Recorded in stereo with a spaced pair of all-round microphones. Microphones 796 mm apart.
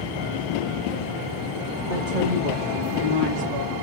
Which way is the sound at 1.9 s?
70° right (ahead or behind).